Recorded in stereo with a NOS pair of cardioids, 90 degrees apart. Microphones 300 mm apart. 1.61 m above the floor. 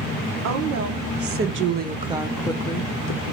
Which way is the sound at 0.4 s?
65° right.